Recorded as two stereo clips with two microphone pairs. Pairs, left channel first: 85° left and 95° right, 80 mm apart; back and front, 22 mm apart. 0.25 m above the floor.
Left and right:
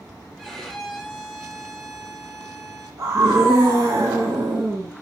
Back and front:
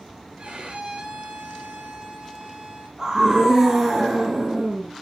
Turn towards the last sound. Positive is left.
turn(degrees=-55)